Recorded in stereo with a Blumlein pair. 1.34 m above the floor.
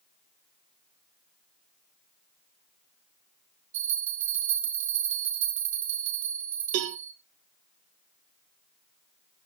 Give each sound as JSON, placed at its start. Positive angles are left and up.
{"t": 3.7, "sound": "a bell", "azimuth_deg": -60, "distance_m": 4.0}
{"t": 6.7, "sound": "a cowbell", "azimuth_deg": -45, "distance_m": 0.9}